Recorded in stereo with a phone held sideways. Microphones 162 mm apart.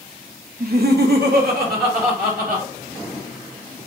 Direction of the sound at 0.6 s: 60° right (ahead or behind).